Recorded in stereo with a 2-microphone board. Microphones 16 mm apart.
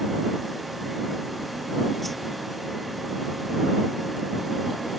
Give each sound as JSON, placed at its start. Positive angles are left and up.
{"t": 2.0, "sound": "a whoosh", "side_deg": 15}